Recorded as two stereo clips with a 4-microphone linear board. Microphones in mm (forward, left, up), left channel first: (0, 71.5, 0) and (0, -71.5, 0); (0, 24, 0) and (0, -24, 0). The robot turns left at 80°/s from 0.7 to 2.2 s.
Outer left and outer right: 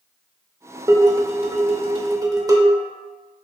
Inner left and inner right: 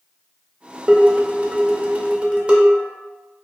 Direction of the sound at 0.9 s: 35° right.